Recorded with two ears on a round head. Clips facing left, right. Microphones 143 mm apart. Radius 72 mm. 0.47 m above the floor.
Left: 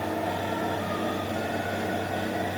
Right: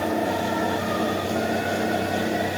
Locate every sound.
Only background noise.